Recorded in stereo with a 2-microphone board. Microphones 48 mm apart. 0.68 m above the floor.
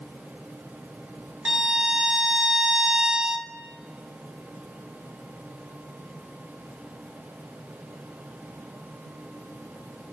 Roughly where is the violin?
Centre.